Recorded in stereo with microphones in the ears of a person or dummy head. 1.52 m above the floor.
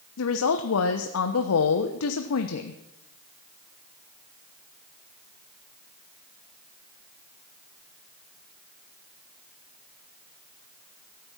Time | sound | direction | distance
0.2 | a woman speaking | 85° left | 1.0 m